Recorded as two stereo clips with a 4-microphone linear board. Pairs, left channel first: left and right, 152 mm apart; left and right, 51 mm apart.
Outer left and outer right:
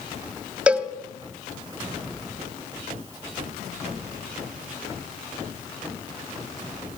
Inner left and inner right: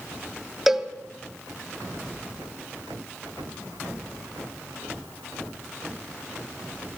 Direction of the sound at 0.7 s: 10° right (ahead or behind).